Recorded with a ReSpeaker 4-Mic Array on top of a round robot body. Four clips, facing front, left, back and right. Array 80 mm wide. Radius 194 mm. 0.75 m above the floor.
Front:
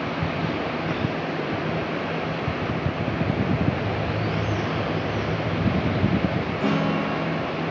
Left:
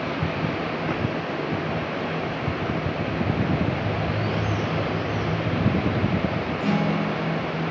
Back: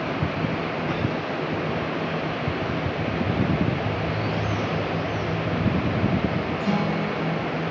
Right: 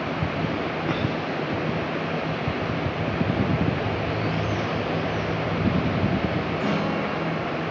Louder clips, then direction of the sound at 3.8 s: Even, even; 60° left.